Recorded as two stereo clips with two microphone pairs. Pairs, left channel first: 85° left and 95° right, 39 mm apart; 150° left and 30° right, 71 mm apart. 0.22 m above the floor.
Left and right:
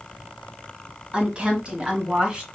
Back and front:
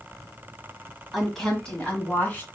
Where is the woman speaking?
120° right, 1.5 m; by 2.5 s 155° right, 1.9 m.